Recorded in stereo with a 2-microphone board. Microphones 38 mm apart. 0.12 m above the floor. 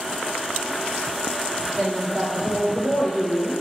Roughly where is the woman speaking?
Centre.